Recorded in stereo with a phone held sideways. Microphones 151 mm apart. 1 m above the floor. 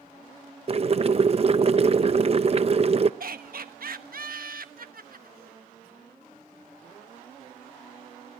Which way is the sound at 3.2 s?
75° right (ahead or behind).